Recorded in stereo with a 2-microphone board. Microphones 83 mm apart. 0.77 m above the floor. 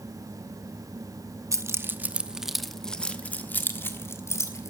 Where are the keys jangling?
40° right (ahead or behind), 0.8 m; by 4.7 s 35° left (ahead or behind), 1.6 m.